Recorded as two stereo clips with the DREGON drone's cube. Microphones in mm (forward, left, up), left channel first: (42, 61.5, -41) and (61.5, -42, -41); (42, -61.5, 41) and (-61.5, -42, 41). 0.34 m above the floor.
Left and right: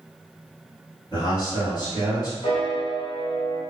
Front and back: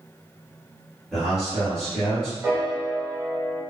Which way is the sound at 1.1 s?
80° left.